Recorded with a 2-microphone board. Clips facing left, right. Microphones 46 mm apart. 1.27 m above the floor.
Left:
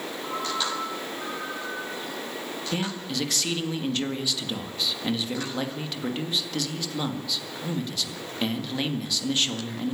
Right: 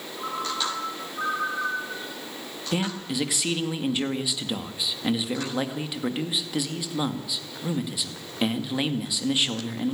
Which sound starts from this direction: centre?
A man speaking, at 2.7 s.